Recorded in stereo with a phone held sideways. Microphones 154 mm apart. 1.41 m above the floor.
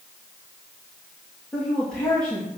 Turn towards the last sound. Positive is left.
turn(degrees=5)  # may be behind; listen again after turning